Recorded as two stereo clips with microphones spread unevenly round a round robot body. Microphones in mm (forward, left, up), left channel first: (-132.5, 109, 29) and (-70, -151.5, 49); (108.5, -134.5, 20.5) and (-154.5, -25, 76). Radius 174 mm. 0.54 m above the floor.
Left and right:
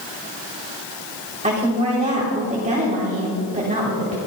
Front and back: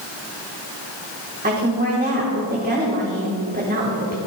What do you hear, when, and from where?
1.4 s a woman speaking: 140° right, 3 m